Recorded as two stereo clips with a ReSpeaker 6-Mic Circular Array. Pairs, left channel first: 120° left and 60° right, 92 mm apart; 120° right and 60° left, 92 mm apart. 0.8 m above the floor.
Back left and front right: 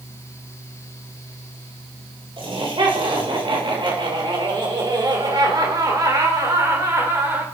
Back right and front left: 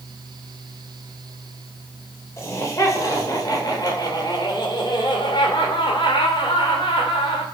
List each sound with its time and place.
2.4 s laughter: 65° right, 4 m; by 7.5 s 120° right, 3.5 m